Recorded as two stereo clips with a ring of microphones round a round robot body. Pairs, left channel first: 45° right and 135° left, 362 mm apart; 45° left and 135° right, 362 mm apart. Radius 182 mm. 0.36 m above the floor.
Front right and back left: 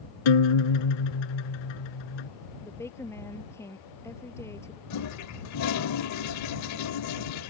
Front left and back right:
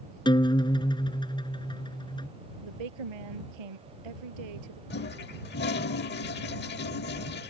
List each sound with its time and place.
0.2 s a guitar: 35° right
2.6 s a woman speaking: 130° right
4.9 s a toilet flushing: 10° right